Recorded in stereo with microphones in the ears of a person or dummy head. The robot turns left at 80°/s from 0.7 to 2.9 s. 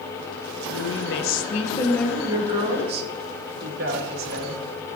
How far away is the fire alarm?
No fire alarm in this recording.